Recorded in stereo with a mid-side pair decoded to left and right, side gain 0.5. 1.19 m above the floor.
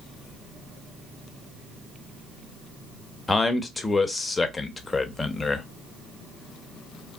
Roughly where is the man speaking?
Ahead.